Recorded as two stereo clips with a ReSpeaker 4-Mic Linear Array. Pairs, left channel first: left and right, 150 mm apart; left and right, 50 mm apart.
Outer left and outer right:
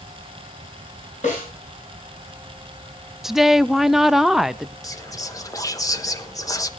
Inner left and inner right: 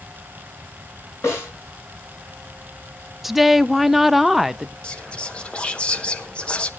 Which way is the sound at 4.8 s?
25° left (ahead or behind).